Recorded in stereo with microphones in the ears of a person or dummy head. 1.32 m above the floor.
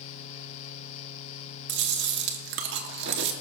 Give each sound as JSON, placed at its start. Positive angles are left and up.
{"t": 1.7, "sound": "chewing", "side_deg": -65, "distance_m": 1.1}